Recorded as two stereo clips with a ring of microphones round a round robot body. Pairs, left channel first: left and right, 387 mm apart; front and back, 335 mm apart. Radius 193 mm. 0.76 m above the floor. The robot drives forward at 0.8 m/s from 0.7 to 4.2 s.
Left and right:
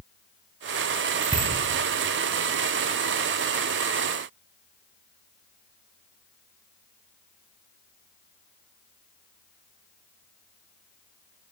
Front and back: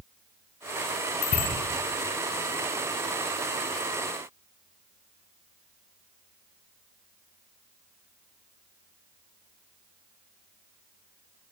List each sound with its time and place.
1.2 s a bicycle bell: 10° right, 5 m; by 1.5 s 15° right, 5 m